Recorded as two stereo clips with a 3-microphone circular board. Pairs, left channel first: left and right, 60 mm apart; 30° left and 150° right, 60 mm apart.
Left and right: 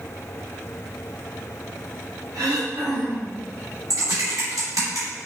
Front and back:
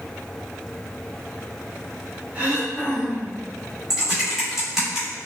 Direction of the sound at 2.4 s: 85° right.